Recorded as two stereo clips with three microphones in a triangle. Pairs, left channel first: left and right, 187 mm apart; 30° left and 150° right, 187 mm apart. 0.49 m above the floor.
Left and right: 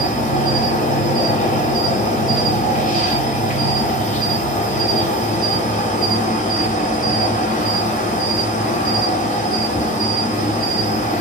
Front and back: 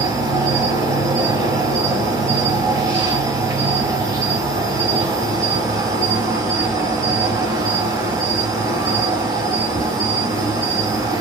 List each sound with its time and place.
0.0 s an insect: 140° left, 0.7 m